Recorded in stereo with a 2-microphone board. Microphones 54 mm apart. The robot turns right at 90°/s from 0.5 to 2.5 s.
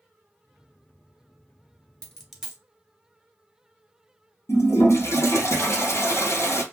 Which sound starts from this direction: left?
A toilet flushing, at 4.5 s.